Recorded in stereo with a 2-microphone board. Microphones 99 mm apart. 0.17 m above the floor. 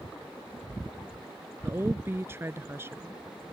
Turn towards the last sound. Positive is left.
turn(degrees=-25)  # may be behind; listen again after turning